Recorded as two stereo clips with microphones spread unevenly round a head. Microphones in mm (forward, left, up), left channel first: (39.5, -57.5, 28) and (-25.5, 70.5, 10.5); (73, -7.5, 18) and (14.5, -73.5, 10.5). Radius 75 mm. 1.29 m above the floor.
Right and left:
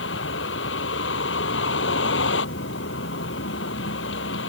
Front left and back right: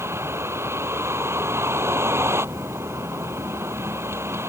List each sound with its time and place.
0.0 s a vehicle: 70° right